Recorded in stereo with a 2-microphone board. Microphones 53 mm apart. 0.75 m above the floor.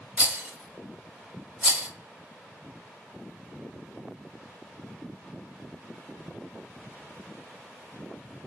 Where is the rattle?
25° right (ahead or behind), 1.0 m.